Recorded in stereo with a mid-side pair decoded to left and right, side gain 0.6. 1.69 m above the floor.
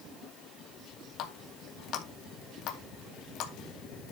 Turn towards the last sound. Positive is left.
turn(degrees=65)